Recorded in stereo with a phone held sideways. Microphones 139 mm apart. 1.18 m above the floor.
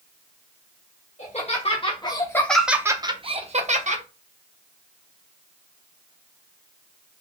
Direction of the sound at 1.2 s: 55° left (ahead or behind).